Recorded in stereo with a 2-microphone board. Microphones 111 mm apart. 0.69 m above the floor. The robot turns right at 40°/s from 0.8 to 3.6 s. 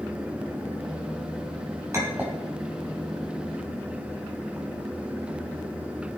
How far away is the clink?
About 3 m.